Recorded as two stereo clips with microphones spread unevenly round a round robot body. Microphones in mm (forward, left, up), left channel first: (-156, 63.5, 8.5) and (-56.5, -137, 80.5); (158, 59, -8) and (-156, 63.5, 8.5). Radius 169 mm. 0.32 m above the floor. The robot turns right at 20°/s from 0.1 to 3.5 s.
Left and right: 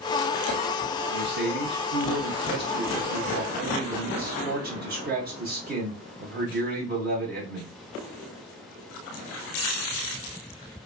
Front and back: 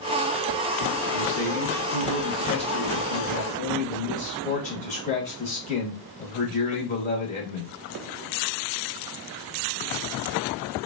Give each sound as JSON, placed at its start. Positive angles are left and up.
{"t": 1.1, "sound": "a man speaking", "azimuth_deg": -70, "distance_m": 0.9}